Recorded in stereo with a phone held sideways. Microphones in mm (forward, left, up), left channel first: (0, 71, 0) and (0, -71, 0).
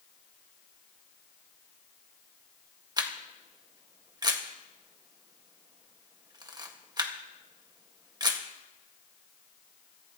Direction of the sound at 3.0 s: 30° right (ahead or behind).